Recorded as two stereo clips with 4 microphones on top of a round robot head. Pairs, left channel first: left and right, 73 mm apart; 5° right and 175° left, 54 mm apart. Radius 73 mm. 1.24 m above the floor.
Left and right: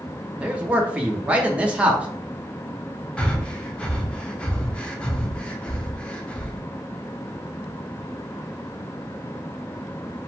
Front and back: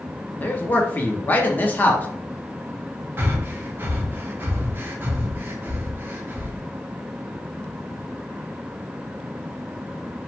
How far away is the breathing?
About 0.7 m.